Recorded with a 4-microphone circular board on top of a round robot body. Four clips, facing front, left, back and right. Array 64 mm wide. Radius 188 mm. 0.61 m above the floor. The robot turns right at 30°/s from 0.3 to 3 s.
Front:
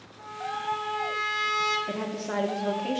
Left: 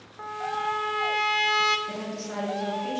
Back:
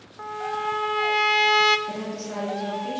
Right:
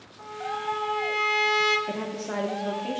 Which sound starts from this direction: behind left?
A trumpet, at 0.2 s.